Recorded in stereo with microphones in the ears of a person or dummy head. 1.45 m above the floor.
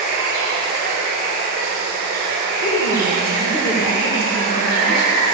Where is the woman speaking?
55° left (ahead or behind), 2.5 m.